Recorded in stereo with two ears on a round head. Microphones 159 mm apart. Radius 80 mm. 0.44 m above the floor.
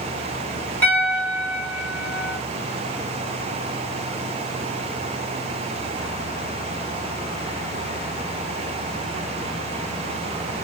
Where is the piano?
10° left (ahead or behind), 1.6 m.